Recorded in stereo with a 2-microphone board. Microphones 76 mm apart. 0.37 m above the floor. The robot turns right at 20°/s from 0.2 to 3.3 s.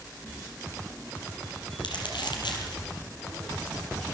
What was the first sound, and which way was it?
Crumpling, 80° left.